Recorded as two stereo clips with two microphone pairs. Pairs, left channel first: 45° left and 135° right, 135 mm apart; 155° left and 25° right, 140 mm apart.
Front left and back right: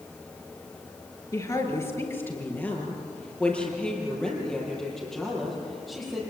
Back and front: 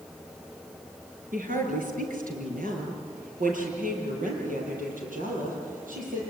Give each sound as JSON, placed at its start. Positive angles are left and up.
{"t": 1.3, "sound": "a woman speaking", "azimuth_deg": -20, "distance_m": 4.0}